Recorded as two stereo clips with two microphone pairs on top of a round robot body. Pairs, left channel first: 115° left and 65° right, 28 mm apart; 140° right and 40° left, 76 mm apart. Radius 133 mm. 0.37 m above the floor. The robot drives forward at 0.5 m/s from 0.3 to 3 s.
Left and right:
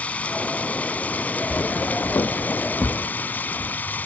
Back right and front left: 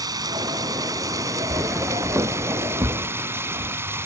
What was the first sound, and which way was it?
Running water, 75° left.